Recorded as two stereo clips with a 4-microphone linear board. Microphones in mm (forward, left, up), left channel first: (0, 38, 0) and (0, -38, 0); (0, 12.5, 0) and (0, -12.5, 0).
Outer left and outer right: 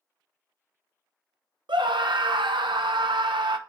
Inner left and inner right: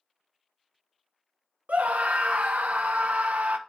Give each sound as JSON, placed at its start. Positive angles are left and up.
{"t": 1.7, "sound": "a scream", "side_deg": -80, "distance_m": 0.7}